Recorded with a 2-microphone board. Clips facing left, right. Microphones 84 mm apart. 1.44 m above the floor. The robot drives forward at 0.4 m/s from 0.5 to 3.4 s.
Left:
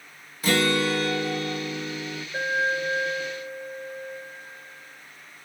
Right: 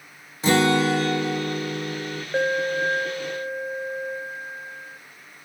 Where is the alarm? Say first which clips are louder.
Right 3 dB; 75° right (ahead or behind), 1.0 m; by 5.0 s 65° right (ahead or behind), 1.0 m.